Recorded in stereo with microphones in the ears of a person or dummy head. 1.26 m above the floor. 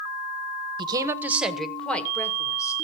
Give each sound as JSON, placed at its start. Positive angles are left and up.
{"t": 0.8, "sound": "a woman speaking", "side_deg": -25, "distance_m": 0.9}